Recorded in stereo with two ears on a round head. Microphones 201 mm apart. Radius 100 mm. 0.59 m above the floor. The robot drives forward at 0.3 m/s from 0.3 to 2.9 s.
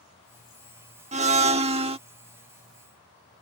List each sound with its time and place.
1.1 s a blender: 30° right (ahead or behind); by 2.0 s 25° right (ahead or behind)